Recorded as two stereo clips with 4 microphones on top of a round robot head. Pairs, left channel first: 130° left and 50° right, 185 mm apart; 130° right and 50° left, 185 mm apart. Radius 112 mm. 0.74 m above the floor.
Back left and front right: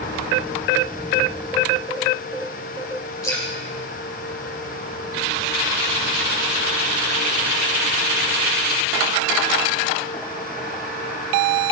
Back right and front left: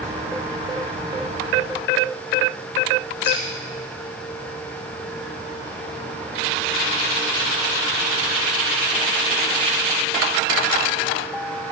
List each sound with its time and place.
3.2 s dripping: 160° right, 9.5 m